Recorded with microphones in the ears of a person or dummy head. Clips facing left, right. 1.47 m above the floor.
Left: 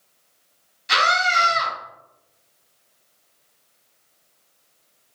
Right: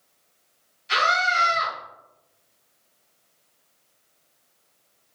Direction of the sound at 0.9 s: 85° left.